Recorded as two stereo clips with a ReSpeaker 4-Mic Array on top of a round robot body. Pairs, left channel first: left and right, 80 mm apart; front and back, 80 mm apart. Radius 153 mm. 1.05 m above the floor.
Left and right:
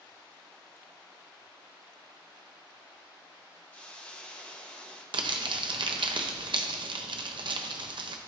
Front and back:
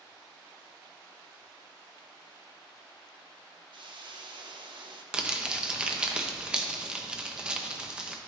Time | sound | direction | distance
3.7 | a hiss | 165° left | 0.8 m
5.1 | crumpling | 100° right | 0.7 m